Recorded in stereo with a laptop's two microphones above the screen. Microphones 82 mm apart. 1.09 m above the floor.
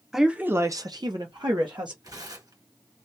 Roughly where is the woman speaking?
Centre.